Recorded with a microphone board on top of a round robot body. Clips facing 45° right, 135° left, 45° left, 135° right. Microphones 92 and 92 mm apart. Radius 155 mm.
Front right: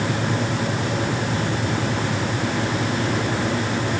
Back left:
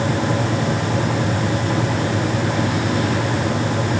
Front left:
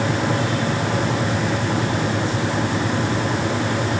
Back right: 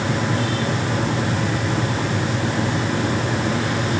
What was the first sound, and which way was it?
Only background noise.